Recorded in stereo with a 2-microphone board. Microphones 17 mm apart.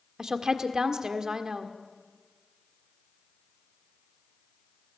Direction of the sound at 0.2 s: 35° right (ahead or behind).